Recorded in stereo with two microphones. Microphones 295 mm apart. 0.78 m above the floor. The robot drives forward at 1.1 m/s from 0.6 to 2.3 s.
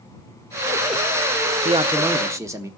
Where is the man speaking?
20° right (ahead or behind), 0.5 m; by 2.7 s 10° right (ahead or behind), 1.1 m.